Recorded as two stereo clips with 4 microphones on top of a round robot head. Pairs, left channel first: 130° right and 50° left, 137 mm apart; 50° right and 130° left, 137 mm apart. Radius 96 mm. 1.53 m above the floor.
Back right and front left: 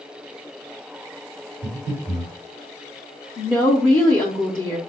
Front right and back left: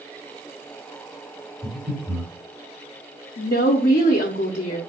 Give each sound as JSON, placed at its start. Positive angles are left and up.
{"t": 1.6, "sound": "breathing", "azimuth_deg": -145, "distance_m": 3.0}
{"t": 3.4, "sound": "a woman speaking", "azimuth_deg": -65, "distance_m": 0.7}